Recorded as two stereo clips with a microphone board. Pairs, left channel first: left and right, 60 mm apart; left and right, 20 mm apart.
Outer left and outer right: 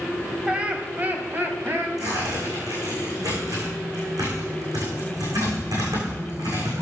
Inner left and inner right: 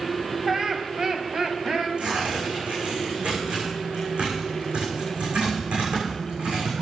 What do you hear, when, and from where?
0.5 s laughter: 20° right (ahead or behind), 1.4 m; by 1.9 s 45° right (ahead or behind), 2.0 m
2.0 s tearing paper: 85° right, 6.5 m